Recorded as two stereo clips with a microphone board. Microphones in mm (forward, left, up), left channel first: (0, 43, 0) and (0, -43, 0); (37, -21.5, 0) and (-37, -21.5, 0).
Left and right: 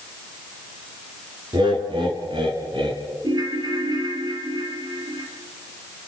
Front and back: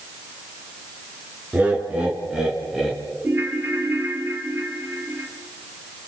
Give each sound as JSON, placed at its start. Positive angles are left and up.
{"t": 1.5, "sound": "laughter", "azimuth_deg": -110, "distance_m": 5.5}
{"t": 3.2, "sound": "a ringtone", "azimuth_deg": -120, "distance_m": 2.5}